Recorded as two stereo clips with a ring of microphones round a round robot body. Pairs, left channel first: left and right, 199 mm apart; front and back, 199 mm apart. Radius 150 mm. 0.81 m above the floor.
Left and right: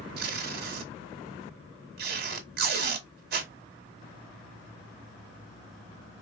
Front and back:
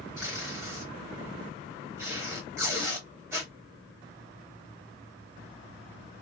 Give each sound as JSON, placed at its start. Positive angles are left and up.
{"t": 0.2, "sound": "tape being pulled", "azimuth_deg": -105, "distance_m": 0.7}